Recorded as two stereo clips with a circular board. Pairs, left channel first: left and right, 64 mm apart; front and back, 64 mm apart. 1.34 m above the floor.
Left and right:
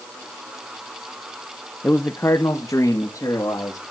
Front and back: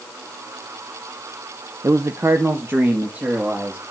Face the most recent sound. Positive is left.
turn(degrees=120)